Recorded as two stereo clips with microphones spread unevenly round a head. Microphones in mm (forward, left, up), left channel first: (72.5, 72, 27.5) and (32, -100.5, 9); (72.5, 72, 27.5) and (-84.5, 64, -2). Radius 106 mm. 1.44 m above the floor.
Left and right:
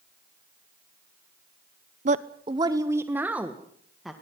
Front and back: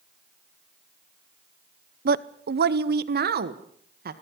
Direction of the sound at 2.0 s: 155° right.